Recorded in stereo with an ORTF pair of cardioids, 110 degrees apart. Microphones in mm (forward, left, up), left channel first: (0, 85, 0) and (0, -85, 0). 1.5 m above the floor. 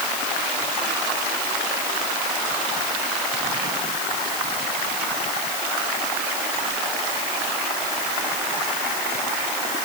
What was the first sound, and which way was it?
Only background noise.